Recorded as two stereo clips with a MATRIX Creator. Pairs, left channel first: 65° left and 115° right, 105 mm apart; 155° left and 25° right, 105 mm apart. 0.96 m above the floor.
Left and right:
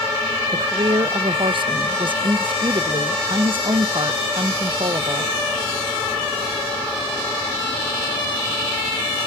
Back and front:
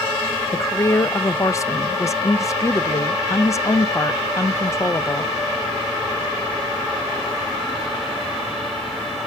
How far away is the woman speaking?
About 0.5 m.